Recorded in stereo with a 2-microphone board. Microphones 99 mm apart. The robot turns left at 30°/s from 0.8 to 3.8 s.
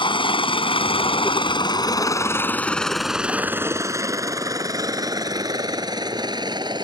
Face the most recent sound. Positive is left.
turn(degrees=-45)  # may be behind; listen again after turning